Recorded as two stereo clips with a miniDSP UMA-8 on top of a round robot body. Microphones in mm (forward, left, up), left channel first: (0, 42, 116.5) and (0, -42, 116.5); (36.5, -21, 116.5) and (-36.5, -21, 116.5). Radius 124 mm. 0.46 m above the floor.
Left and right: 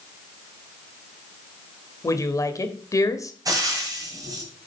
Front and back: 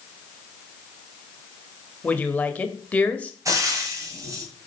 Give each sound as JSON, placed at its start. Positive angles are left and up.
{"t": 2.0, "sound": "a woman speaking", "azimuth_deg": 65, "distance_m": 1.6}
{"t": 3.5, "sound": "frying", "azimuth_deg": -135, "distance_m": 2.5}